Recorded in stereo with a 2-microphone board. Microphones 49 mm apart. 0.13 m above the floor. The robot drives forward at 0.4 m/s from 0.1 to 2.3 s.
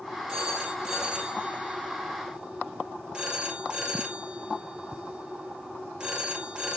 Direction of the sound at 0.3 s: 15° right (ahead or behind).